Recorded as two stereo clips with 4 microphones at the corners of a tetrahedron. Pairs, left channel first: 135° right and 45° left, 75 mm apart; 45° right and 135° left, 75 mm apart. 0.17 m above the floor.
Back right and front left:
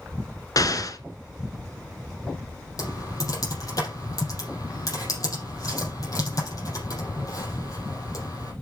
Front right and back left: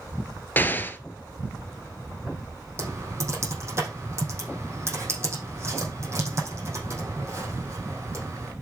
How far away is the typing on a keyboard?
About 5.5 m.